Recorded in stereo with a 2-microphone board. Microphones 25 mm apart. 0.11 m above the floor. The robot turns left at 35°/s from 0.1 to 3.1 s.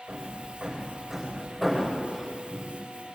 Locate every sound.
0.1 s hammering: 50° right (ahead or behind), 9.5 m; by 2.8 s 40° left (ahead or behind), 9.5 m